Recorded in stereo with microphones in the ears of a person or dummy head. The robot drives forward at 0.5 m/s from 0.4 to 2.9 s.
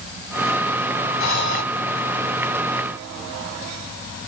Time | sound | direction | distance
1.2 | breathing | 55° left (ahead or behind) | 2.5 m